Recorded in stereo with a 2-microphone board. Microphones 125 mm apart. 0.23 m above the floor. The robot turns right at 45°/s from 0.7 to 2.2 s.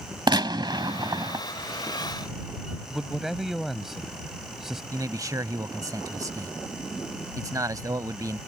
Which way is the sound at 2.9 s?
5° right (ahead or behind).